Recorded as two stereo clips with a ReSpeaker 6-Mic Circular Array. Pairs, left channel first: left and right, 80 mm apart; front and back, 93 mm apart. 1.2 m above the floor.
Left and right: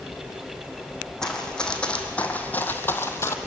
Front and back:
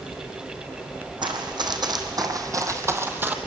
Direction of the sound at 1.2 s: 170° left.